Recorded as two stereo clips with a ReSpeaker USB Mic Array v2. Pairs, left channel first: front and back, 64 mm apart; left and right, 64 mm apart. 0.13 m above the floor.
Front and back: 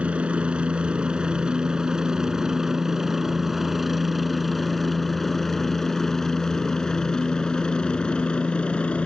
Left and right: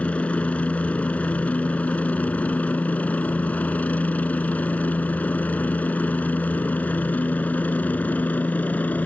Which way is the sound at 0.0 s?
130° left.